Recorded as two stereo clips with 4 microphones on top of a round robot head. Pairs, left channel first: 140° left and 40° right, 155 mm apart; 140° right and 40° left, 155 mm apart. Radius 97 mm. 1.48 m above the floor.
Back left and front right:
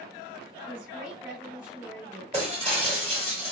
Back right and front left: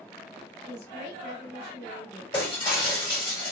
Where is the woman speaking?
110° right, 1.4 m.